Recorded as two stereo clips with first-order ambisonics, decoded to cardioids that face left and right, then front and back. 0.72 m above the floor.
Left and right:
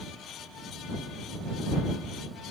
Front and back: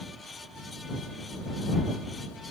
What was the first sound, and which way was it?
Only background noise.